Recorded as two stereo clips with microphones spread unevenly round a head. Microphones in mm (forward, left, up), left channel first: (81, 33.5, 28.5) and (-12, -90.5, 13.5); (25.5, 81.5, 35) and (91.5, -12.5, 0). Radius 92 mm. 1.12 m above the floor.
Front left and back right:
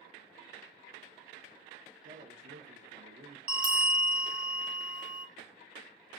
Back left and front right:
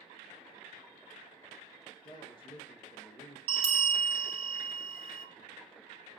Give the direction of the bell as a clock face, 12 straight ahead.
2 o'clock.